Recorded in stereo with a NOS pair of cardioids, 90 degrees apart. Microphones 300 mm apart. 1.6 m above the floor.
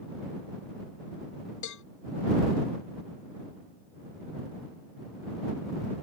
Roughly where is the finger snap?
No finger snap in this recording.